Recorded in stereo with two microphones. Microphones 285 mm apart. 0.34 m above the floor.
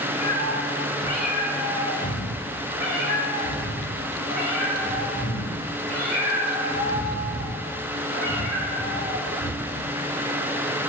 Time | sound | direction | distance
0.2 | a cat meowing | 70° left (ahead or behind) | 2.5 m